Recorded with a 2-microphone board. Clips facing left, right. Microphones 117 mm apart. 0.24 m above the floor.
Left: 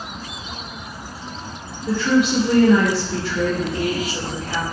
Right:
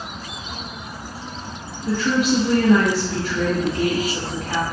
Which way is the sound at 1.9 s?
35° right (ahead or behind).